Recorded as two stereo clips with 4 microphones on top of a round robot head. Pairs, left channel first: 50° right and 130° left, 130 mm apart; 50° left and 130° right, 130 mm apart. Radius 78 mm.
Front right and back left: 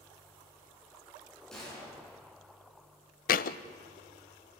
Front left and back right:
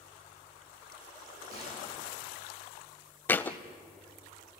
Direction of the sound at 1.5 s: 135° right.